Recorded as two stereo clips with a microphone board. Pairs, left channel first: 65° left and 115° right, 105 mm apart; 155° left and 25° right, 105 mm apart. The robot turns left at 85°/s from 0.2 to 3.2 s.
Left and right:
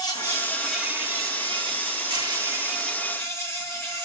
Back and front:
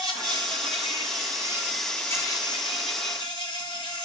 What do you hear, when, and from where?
0.0 s an insect: 25° left, 1.9 m; by 4.0 s 130° left, 1.9 m